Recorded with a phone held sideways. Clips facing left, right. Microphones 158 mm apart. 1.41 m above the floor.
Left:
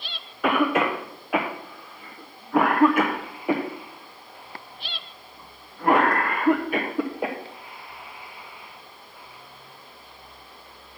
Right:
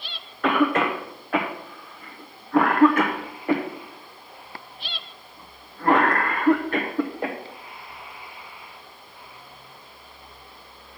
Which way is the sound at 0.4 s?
10° left (ahead or behind).